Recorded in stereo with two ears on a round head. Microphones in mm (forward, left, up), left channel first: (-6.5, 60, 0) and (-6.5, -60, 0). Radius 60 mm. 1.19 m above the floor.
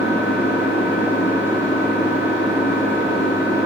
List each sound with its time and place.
0.0 s an engine running: 5° right (ahead or behind), 9 m